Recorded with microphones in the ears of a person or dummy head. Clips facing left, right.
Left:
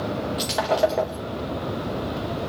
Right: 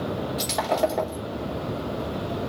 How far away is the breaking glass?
About 1.0 m.